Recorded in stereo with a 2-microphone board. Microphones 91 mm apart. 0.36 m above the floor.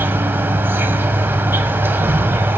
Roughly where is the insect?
Right.